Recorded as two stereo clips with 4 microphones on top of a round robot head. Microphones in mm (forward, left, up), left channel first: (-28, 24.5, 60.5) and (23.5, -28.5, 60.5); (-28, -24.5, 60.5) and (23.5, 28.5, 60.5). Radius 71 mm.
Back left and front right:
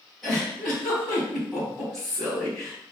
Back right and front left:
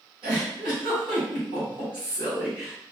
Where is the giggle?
45° left, 1.5 m.